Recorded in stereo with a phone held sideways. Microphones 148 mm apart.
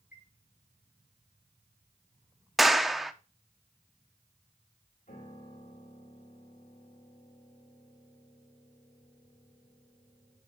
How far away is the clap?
About 0.6 m.